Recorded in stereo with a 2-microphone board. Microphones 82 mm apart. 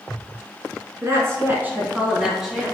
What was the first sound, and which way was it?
A woman speaking, 40° right (ahead or behind).